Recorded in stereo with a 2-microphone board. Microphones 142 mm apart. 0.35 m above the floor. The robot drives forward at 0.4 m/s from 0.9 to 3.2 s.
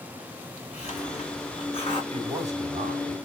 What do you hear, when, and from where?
0.7 s a hiss: 50° left (ahead or behind), 3 m; by 2.0 s 45° left (ahead or behind), 3 m
2.1 s a man speaking: 55° right (ahead or behind), 2 m; by 3.2 s 60° right (ahead or behind), 2 m